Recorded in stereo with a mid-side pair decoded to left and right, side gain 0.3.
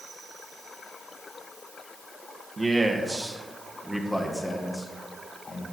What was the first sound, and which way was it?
A man speaking, 35° right.